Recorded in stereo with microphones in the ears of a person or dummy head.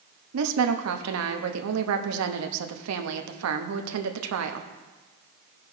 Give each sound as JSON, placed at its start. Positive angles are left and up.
{"t": 0.3, "sound": "a woman speaking", "side_deg": -80, "distance_m": 0.9}